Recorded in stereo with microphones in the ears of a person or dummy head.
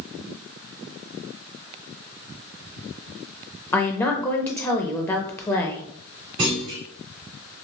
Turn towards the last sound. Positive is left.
turn(degrees=-35)  # may be behind; listen again after turning